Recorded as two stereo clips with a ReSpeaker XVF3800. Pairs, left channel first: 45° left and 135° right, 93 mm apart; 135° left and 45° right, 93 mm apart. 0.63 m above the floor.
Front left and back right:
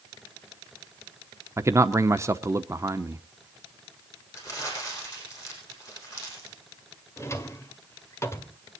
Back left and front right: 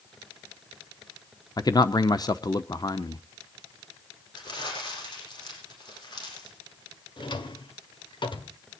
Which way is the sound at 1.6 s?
170° left.